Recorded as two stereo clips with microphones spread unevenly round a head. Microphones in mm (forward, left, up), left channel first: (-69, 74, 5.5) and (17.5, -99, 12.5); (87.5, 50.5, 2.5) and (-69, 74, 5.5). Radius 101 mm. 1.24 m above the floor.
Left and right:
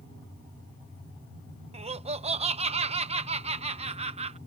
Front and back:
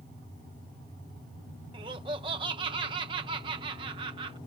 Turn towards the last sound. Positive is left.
turn(degrees=-120)